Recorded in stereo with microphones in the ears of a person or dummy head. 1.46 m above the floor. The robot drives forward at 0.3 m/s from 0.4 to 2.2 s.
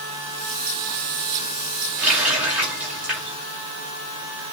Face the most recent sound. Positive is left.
turn(degrees=-5)  # may be behind; listen again after turning